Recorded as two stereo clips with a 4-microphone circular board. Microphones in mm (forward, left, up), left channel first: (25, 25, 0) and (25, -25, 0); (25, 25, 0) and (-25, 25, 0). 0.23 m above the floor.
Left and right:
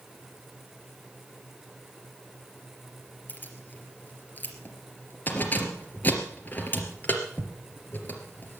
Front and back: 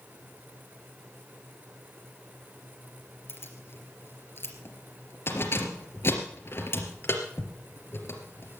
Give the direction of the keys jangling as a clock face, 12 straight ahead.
11 o'clock.